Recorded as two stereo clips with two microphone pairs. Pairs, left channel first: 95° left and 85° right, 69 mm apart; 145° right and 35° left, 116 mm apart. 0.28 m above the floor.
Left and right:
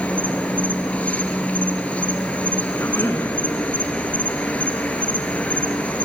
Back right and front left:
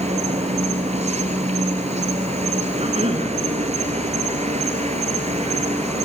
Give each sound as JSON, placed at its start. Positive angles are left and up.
{"t": 0.0, "sound": "an insect", "azimuth_deg": 30, "distance_m": 1.1}
{"t": 2.8, "sound": "a cough", "azimuth_deg": 45, "distance_m": 2.0}